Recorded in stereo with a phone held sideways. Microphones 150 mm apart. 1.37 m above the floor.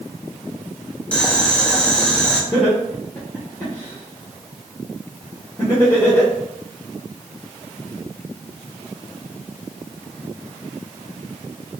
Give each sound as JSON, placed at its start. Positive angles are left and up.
{"t": 1.1, "sound": "boiling", "side_deg": 10, "distance_m": 0.6}
{"t": 2.5, "sound": "laughter", "side_deg": 15, "distance_m": 1.2}